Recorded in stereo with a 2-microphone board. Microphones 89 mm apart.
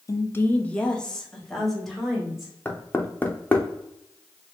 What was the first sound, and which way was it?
A woman speaking, 35° left (ahead or behind).